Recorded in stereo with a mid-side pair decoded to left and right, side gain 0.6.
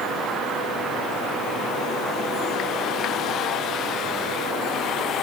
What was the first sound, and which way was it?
Only background noise.